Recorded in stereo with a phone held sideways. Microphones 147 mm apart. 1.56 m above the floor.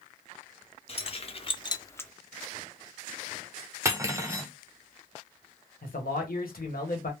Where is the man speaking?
75° left (ahead or behind), 1.1 m.